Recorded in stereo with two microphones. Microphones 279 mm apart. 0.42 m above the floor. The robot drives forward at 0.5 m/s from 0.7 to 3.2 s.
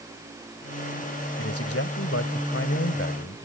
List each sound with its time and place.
1.4 s a man speaking: 60° left (ahead or behind); by 3.5 s 55° left (ahead or behind)